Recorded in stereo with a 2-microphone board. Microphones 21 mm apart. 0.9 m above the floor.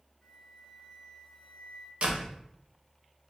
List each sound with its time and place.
0.2 s a flute: 20° left (ahead or behind), 2.0 m
2.0 s a door slam: 60° right (ahead or behind), 1.1 m